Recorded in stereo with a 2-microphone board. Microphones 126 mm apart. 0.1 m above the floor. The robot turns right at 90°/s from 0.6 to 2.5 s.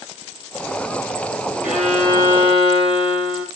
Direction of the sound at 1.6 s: 15° right.